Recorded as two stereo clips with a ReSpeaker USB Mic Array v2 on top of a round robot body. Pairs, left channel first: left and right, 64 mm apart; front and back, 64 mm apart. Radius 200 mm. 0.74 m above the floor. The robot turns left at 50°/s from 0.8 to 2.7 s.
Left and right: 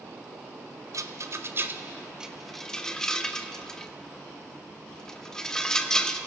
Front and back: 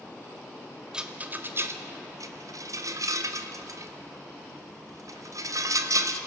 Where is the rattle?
105° right, 1.3 m; by 6.2 s 170° left, 1.3 m.